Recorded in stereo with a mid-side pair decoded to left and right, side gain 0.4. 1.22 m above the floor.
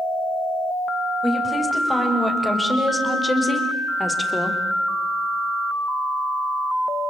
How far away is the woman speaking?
About 8 m.